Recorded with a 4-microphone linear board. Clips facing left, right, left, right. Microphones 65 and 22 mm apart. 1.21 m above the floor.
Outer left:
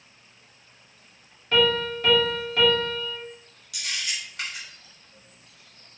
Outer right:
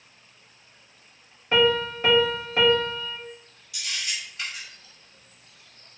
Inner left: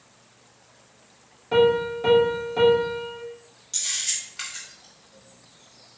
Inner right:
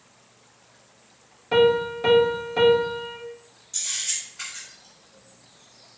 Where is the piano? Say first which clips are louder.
Outer right 1 dB, even; 25° right (ahead or behind), 1.0 m.